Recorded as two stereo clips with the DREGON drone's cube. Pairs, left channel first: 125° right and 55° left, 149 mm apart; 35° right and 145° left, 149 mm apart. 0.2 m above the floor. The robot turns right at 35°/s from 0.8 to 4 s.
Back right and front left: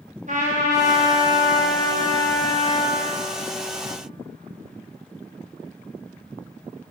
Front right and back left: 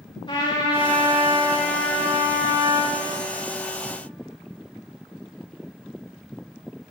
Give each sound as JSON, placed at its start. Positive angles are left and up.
{"t": 0.3, "sound": "a trumpet", "azimuth_deg": 25, "distance_m": 6.0}